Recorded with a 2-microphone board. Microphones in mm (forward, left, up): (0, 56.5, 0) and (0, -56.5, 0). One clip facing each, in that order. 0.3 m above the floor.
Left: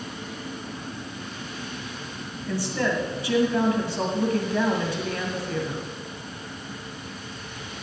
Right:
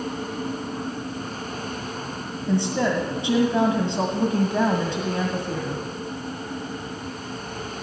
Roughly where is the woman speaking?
Right.